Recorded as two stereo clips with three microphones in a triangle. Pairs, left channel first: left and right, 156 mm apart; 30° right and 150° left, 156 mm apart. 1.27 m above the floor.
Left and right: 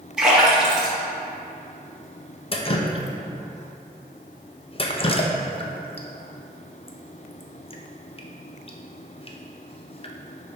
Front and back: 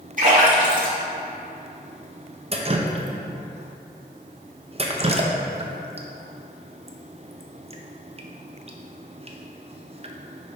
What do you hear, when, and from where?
0.2 s a splash: 175° right, 2.0 m
2.5 s dripping: 125° left, 0.5 m